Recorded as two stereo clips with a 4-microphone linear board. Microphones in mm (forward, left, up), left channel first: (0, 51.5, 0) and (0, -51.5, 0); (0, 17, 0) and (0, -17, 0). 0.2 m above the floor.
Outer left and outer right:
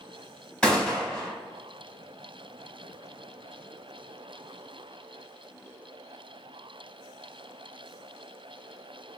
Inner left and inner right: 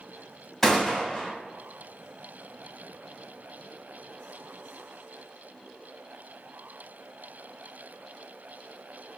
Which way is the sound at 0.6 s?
10° left (ahead or behind).